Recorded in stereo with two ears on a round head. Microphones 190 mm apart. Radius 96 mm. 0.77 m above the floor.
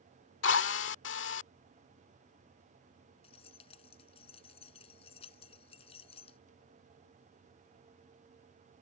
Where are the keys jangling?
25° left (ahead or behind).